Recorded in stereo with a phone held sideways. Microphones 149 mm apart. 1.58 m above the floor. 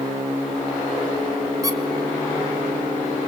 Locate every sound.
1.6 s a squeak: 25° right (ahead or behind), 1.9 m